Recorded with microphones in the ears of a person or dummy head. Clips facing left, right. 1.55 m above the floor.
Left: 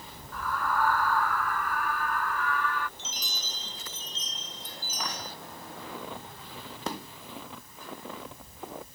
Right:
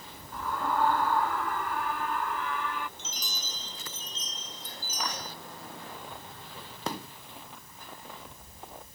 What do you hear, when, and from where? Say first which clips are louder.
0.3 s a scream: even; 25° right (ahead or behind); by 2.9 s 20° right (ahead or behind)
3.0 s a chime: even; 85° right
5.8 s footsteps: left 4 dB; 75° left (ahead or behind); by 8.9 s 70° left (ahead or behind)